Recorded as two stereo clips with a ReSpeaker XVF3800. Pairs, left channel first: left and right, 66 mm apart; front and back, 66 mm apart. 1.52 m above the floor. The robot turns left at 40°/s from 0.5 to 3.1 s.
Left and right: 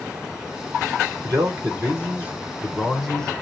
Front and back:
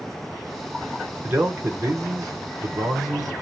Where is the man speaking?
115° right, 1.0 m; by 3.3 s 170° left, 1.0 m.